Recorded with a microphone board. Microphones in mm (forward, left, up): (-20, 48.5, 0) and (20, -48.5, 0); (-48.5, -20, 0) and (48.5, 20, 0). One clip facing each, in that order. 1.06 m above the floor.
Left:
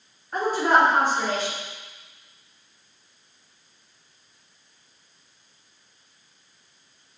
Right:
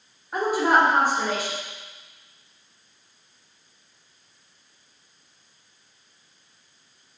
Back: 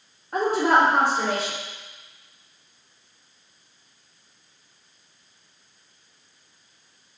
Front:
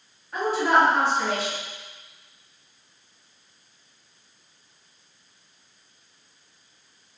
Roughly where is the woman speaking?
Behind right.